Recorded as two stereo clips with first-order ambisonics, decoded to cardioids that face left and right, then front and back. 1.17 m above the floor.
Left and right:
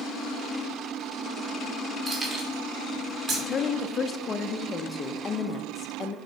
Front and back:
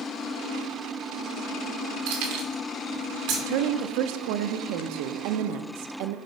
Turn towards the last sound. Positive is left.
turn(degrees=160)